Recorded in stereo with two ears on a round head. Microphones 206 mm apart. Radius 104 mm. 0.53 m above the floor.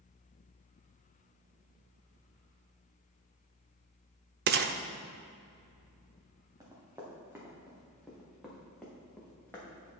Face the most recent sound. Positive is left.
turn(degrees=15)  # may be behind; listen again after turning